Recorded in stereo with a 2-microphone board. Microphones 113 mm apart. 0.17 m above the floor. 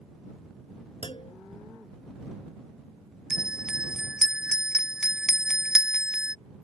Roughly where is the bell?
Centre.